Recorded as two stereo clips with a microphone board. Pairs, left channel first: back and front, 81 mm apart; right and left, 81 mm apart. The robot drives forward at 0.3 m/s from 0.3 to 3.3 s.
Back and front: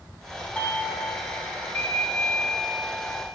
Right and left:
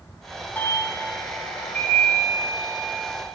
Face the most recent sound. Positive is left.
turn(degrees=-155)